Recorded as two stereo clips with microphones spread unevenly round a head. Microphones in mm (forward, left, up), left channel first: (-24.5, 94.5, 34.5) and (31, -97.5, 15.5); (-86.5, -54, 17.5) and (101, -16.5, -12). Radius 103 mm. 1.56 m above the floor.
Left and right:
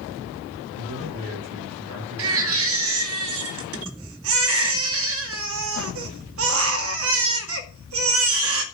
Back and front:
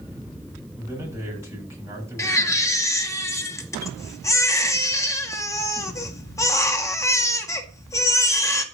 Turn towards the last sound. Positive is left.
turn(degrees=-100)